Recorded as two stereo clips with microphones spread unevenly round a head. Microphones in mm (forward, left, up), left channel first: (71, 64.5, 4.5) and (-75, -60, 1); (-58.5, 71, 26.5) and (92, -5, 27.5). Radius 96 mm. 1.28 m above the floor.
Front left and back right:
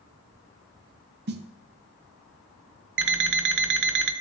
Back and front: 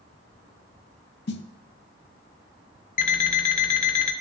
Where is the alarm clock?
160° right, 0.6 m.